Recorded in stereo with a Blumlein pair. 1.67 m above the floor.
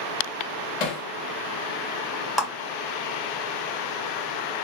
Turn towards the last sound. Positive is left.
turn(degrees=-5)